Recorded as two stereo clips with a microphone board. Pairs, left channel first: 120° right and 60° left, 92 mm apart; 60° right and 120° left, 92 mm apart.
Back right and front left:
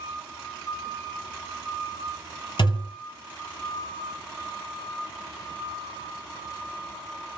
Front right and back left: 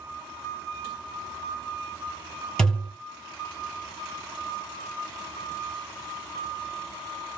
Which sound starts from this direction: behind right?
A thud, at 2.6 s.